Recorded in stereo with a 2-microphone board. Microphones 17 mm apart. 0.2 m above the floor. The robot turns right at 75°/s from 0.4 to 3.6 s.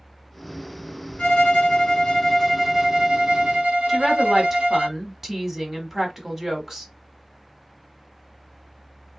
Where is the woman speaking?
20° right (ahead or behind), 1.2 m.